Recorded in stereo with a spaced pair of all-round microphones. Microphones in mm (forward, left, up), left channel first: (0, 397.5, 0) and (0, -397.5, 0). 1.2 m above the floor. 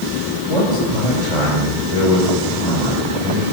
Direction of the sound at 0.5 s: 30° right (ahead or behind).